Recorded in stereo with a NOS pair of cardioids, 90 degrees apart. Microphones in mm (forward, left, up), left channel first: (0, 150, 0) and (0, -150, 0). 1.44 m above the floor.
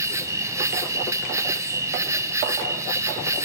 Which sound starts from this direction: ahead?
An insect, at 0.0 s.